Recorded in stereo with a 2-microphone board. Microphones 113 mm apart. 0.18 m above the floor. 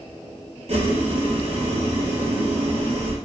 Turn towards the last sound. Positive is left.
turn(degrees=-65)  # may be behind; listen again after turning